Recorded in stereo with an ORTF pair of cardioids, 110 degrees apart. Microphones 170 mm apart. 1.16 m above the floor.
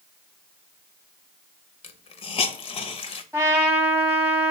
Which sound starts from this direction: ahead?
A trumpet, at 3.3 s.